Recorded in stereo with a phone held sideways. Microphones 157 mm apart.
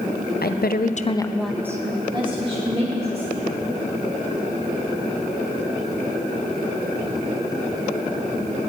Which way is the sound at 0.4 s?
80° left.